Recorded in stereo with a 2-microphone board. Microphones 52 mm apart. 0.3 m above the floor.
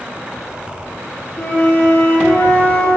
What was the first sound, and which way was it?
A flute, 50° left (ahead or behind).